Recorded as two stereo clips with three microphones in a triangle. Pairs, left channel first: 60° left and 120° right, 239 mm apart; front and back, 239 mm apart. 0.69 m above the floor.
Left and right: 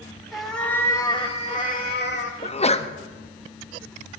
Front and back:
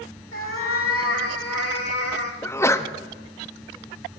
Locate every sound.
0.3 s a cat meowing: 30° right, 1.3 m; by 2.3 s 20° left, 1.2 m
2.4 s a sneeze: 65° left, 0.5 m